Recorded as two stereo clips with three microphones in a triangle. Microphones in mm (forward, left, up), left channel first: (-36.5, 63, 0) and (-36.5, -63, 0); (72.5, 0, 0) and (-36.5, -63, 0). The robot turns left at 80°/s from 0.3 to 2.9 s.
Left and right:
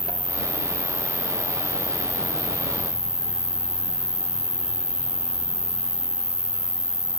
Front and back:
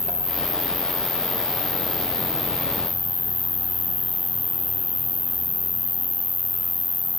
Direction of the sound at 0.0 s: 145° left.